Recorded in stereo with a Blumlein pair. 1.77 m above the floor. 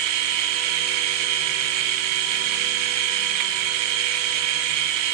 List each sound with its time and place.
0.0 s a machine running: 45° right, 1.6 m